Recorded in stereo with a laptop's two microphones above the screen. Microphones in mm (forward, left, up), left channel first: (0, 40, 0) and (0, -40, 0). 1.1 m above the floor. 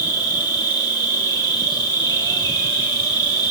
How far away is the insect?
About 2 m.